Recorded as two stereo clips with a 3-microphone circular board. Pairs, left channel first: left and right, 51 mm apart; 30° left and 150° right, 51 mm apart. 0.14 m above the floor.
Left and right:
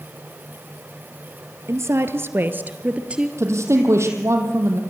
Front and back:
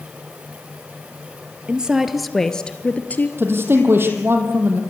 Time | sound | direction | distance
1.7 | a woman speaking | 80° right | 2.5 m
3.4 | a man speaking | 110° right | 4.5 m